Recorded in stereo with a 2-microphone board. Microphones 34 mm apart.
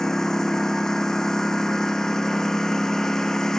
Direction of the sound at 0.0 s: 15° left (ahead or behind).